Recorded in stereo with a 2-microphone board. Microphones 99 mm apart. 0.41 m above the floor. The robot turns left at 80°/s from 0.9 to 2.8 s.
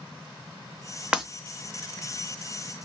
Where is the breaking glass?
10° right (ahead or behind), 0.5 m; by 1.2 s 5° right (ahead or behind), 0.5 m.